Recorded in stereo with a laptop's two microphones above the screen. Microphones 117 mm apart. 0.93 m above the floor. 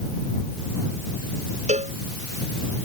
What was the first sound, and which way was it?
A cowbell, 85° right.